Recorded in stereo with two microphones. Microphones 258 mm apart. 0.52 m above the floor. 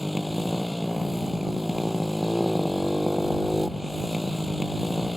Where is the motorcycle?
Centre (ahead or behind).